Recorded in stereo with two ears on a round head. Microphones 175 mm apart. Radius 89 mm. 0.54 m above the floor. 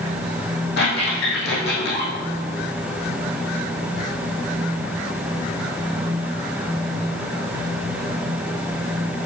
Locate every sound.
0.8 s a squeak: 55° left (ahead or behind), 3.5 m